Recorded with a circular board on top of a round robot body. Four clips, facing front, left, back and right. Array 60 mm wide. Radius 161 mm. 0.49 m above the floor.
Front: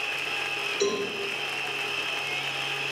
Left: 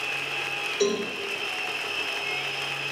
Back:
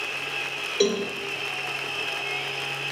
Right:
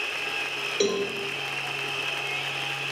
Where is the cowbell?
140° right, 3 m.